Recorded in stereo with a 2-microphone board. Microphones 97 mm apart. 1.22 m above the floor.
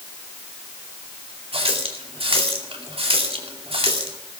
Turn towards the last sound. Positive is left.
turn(degrees=-75)  # may be behind; listen again after turning